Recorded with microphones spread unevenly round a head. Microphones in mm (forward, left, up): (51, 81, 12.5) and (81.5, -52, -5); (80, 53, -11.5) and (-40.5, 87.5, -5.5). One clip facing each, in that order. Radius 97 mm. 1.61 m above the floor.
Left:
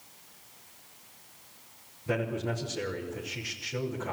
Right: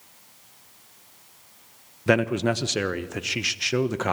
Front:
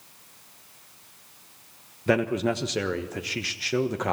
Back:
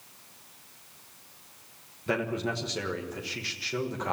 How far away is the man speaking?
About 1.2 m.